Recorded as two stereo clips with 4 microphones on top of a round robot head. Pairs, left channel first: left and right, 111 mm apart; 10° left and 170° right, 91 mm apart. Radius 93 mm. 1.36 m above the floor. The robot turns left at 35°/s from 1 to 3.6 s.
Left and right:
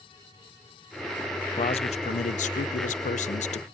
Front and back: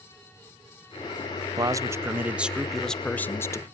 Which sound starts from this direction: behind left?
A man speaking, at 1.6 s.